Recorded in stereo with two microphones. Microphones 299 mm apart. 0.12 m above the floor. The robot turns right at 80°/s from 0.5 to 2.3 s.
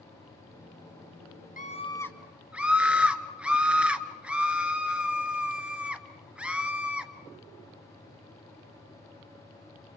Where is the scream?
125° left, 2.0 m; by 7.1 s 175° right, 2.0 m.